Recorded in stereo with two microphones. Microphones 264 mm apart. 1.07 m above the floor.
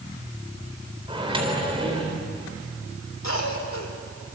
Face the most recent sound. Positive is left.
turn(degrees=80)